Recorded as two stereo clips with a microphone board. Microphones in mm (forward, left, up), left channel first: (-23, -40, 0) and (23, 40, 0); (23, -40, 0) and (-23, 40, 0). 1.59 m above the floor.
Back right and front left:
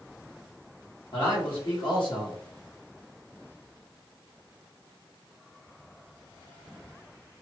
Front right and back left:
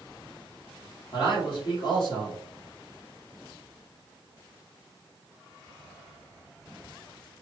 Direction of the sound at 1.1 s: 95° right.